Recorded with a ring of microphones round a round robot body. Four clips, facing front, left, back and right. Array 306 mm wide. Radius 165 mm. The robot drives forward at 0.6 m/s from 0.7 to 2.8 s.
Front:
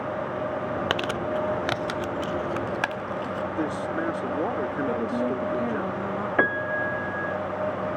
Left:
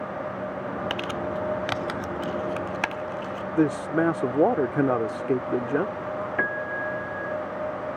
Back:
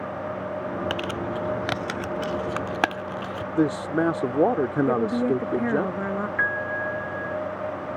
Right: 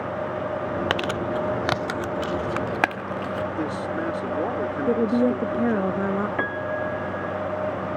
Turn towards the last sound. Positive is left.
turn(degrees=-5)